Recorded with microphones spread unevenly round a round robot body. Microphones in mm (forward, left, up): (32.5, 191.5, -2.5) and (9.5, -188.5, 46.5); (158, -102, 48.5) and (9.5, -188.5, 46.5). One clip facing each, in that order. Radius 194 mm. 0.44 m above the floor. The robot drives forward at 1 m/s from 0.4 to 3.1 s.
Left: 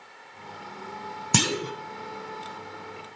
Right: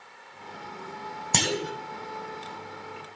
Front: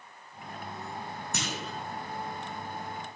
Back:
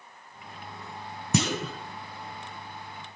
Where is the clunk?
160° left, 0.6 m; by 1.7 s 170° left, 1.0 m.